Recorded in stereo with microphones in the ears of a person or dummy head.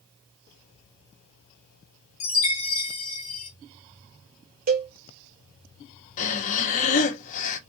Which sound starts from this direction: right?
A cowbell, at 4.7 s.